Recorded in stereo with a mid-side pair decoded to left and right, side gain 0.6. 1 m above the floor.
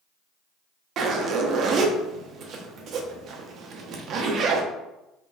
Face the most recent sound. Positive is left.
turn(degrees=-50)